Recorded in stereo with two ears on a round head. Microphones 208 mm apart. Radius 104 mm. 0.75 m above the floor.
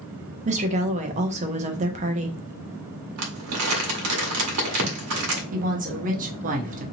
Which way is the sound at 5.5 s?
35° right (ahead or behind).